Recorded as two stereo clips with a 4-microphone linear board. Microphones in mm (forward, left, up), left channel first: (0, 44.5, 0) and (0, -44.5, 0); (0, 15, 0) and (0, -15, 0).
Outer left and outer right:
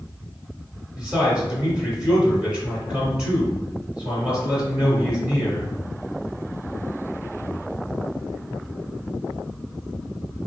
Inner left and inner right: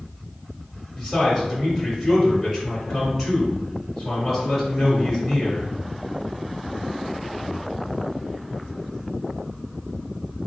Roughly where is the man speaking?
Centre.